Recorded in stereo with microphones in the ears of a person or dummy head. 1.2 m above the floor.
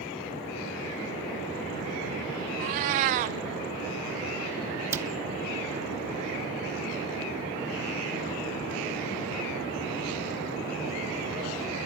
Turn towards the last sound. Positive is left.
turn(degrees=-20)  # may be behind; listen again after turning